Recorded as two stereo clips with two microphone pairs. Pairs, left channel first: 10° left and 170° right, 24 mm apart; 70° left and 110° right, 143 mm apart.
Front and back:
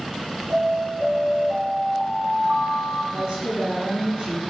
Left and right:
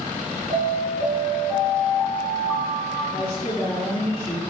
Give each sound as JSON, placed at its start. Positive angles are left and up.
{"t": 0.5, "sound": "an alarm", "azimuth_deg": 165, "distance_m": 3.5}
{"t": 3.1, "sound": "a woman speaking", "azimuth_deg": 145, "distance_m": 3.5}